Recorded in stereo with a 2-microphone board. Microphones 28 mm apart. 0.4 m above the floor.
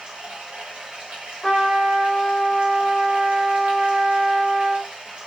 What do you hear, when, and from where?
0.0 s running water: 50° right (ahead or behind), 0.9 m
1.4 s a trumpet: centre (ahead or behind), 1.3 m